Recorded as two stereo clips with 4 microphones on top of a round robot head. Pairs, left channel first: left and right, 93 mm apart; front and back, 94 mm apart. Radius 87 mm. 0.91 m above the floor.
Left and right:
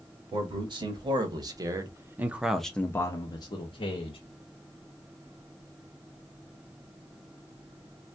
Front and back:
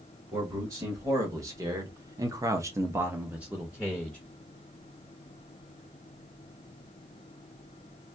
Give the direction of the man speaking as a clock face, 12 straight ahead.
4 o'clock.